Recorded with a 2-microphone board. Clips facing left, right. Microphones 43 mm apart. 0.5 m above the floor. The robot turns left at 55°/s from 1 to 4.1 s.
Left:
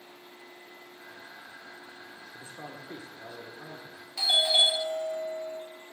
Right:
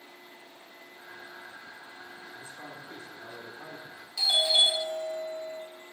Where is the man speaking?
65° left, 1.0 m; by 4.1 s 30° right, 1.0 m.